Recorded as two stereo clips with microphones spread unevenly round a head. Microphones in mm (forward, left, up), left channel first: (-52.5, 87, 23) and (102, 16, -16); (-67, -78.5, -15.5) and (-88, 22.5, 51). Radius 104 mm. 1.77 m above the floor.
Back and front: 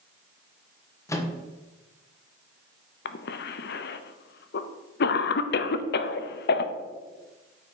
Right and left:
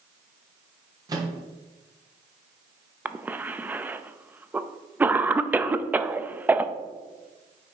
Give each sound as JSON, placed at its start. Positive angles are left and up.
{"t": 1.1, "sound": "a microwave", "azimuth_deg": 95, "distance_m": 1.1}
{"t": 3.0, "sound": "a cough", "azimuth_deg": 160, "distance_m": 0.6}